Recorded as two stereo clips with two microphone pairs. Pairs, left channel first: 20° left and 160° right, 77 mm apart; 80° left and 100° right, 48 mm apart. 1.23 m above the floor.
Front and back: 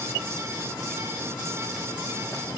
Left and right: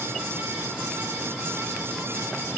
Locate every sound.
Only background noise.